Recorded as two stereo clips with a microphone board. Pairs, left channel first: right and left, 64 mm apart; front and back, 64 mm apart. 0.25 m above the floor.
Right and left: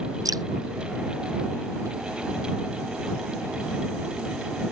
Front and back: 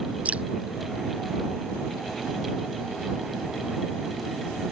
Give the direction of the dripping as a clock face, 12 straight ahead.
8 o'clock.